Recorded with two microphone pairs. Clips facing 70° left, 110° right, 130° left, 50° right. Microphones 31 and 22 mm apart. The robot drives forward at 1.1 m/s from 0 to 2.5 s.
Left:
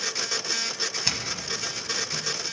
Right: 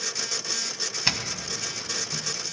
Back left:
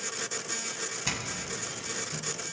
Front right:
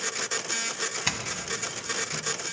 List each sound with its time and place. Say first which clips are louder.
1.1 s a doorbell: right 1 dB, front right 3 dB; 75° right, 1.5 m; by 2.2 s 145° right, 1.9 m